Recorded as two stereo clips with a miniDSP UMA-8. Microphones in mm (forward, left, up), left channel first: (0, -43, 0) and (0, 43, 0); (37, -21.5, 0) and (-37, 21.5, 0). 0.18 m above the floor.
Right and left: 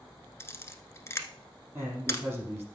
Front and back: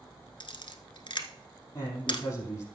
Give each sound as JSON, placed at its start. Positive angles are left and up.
{"t": 0.4, "sound": "a camera shutter", "azimuth_deg": -35, "distance_m": 1.0}
{"t": 1.8, "sound": "a man speaking", "azimuth_deg": 20, "distance_m": 5.0}